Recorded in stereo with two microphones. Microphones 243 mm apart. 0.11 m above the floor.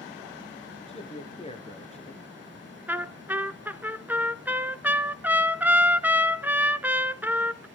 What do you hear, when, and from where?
0.9 s a man speaking: 25° left (ahead or behind), 1.5 m
2.9 s a trumpet: 10° right (ahead or behind), 0.6 m